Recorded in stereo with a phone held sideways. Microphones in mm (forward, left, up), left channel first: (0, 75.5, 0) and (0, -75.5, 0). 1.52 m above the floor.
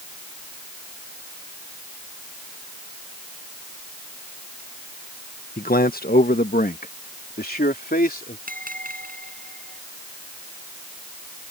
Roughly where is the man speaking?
Left.